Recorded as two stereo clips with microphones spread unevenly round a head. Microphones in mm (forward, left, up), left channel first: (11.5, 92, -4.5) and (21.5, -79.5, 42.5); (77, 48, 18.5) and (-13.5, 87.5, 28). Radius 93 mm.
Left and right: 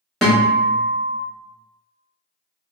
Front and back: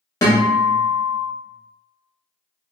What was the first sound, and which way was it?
A guitar, 35° right.